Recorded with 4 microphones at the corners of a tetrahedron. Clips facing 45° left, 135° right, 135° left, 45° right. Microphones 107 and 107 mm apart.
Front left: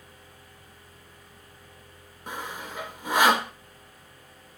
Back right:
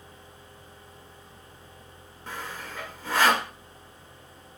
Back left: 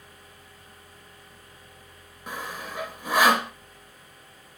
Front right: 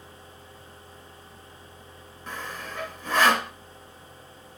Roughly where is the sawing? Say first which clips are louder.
Front left 2 dB, back left 1 dB; left.